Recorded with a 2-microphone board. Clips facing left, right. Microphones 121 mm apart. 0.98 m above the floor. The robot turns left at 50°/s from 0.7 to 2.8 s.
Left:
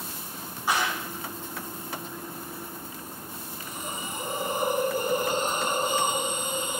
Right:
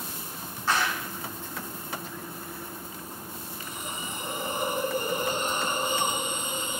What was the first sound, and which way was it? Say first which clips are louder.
A clap: even; 15° left (ahead or behind).